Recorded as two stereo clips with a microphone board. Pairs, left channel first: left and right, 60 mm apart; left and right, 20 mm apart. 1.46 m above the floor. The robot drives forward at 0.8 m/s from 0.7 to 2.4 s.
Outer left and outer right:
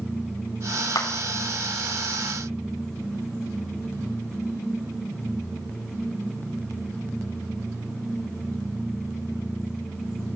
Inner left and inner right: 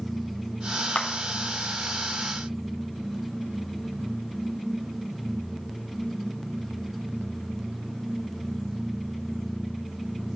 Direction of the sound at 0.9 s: 75° left (ahead or behind).